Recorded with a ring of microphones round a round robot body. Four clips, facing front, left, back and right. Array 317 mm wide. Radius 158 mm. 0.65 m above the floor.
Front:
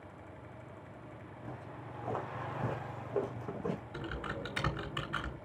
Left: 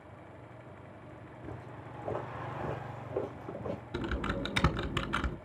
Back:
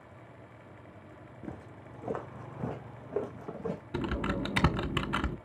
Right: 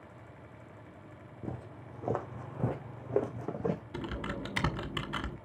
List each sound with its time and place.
1.4 s footsteps: 115° right, 2.5 m; by 3.8 s 85° right, 2.5 m
3.9 s typing on a keyboard: 170° left, 1.4 m